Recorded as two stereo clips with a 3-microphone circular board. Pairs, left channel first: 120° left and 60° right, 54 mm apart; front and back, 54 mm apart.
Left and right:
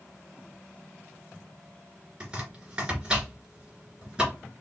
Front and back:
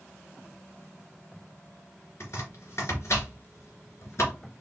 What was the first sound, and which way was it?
Chopping, 10° left.